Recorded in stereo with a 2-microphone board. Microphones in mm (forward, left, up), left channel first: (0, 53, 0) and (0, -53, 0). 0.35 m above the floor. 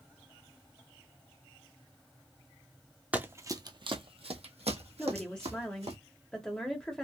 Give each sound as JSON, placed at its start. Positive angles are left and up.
{"t": 3.1, "sound": "running footsteps", "side_deg": -15, "distance_m": 0.7}
{"t": 5.0, "sound": "a woman speaking", "side_deg": 10, "distance_m": 0.9}